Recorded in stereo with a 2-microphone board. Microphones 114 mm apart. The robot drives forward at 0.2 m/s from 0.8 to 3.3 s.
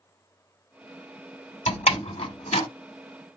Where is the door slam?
85° left, 2.0 m; by 2.7 s 80° left, 2.0 m.